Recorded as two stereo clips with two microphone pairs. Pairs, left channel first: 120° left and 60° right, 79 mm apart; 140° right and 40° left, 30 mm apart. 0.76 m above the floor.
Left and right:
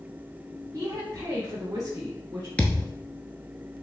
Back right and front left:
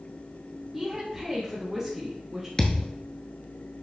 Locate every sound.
0.7 s a woman speaking: 40° right, 1.1 m
2.6 s a thud: straight behind, 0.8 m